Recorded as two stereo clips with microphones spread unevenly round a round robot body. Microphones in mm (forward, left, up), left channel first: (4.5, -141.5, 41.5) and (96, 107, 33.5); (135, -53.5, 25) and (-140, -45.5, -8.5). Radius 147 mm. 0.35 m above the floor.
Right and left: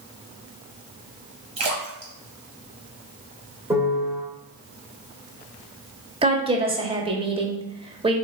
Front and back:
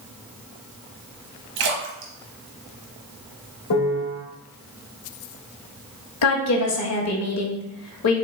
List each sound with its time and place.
1.6 s a splash: 140° left, 0.9 m
3.7 s a piano: 5° right, 1.5 m
6.2 s a woman speaking: 10° left, 1.1 m